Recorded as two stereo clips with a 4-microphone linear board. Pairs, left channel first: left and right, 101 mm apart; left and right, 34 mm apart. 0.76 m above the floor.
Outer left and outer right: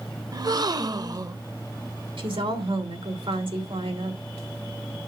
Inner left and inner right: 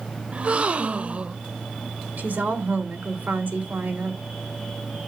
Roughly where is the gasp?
Right.